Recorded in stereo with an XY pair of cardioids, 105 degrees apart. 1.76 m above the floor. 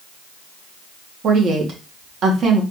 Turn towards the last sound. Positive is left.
turn(degrees=-60)